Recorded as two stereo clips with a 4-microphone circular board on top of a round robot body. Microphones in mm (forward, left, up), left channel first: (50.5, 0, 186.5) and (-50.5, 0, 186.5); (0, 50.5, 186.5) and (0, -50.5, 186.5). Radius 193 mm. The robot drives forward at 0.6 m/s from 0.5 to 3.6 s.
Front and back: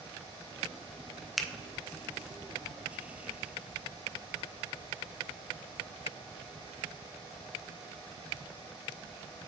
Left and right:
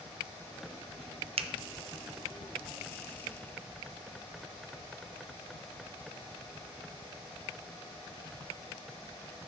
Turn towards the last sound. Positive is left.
turn(degrees=-160)